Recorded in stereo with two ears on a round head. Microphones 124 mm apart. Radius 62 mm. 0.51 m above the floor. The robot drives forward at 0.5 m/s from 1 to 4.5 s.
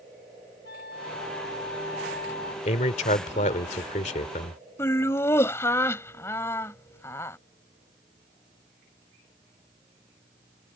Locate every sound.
0.7 s a flute: 75° left (ahead or behind); by 2.5 s 85° left
2.6 s a man speaking: 50° left (ahead or behind); by 4.6 s 55° left (ahead or behind)
4.8 s laughter: 20° left (ahead or behind)